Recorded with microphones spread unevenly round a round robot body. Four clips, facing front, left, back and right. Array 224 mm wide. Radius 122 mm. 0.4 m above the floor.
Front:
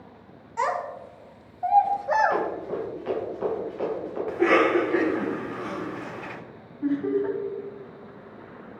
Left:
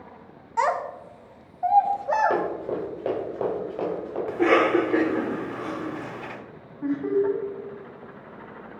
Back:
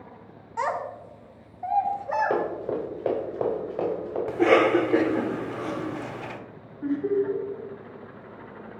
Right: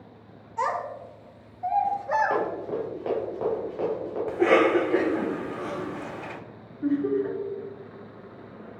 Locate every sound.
0.6 s a child speaking: 90° left, 1.8 m; by 2.4 s 35° left, 1.8 m
2.3 s running footsteps: 135° left, 4.5 m; by 4.2 s 145° left, 5 m
4.3 s a cough: 175° left, 1.1 m
6.8 s laughter: 65° left, 3.5 m